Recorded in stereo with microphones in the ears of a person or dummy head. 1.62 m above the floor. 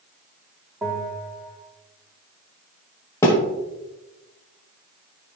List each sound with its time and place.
0.8 s a bell: 5° right (ahead or behind), 2 m
3.2 s a thud: 15° left (ahead or behind), 1.4 m